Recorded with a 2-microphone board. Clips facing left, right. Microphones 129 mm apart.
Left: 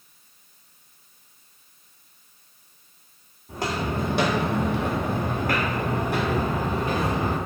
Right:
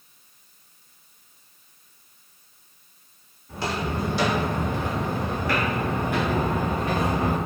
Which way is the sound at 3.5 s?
40° left (ahead or behind).